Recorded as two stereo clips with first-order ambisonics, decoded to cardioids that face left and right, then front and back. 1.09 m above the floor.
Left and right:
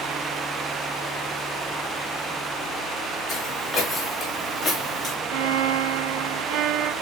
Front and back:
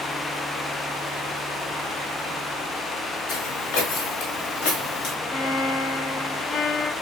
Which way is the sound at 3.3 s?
10° left.